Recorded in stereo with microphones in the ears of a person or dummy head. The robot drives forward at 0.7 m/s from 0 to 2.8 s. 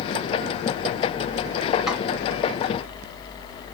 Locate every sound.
1.9 s a snare drum: 5° left (ahead or behind), 1.3 m